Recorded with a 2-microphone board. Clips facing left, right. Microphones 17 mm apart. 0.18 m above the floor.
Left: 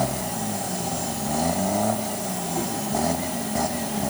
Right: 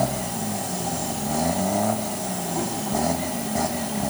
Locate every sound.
Only background noise.